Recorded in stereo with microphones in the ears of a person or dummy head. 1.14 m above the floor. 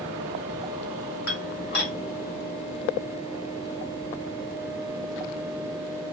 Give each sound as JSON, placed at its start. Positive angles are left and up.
{"t": 1.3, "sound": "dishes clattering", "side_deg": 55, "distance_m": 1.8}